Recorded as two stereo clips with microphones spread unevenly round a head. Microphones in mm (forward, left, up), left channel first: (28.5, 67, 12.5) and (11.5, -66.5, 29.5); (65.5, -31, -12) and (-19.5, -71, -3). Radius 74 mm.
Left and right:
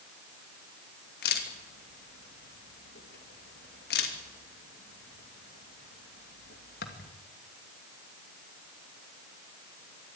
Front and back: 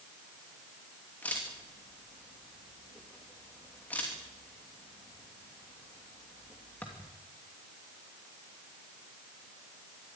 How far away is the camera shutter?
About 2.5 m.